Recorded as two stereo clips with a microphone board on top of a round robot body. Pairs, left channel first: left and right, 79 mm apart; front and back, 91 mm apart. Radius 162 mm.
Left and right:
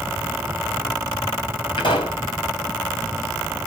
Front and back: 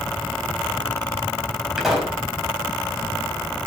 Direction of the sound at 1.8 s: 95° left.